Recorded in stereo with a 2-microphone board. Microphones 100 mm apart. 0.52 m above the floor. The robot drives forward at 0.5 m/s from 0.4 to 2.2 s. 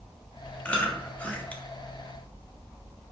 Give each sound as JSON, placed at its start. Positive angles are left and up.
{"t": 0.7, "sound": "chewing", "side_deg": 10, "distance_m": 1.5}